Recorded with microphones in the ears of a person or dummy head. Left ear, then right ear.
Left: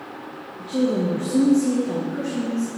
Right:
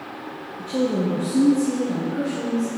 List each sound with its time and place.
0.6 s a woman speaking: 20° right (ahead or behind), 0.6 m; by 2.8 s 85° left, 1.4 m